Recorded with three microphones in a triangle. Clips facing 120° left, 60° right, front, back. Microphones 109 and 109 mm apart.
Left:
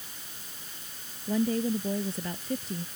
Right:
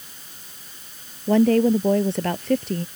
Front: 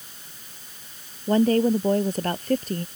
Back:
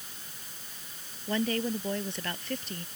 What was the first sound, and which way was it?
A woman speaking, 50° right.